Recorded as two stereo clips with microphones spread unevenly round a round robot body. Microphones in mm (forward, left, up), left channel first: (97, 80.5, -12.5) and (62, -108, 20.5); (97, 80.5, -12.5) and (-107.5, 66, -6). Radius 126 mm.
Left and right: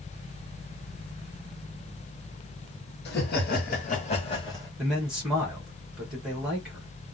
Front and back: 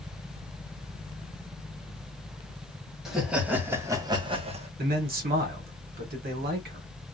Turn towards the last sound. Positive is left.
turn(degrees=165)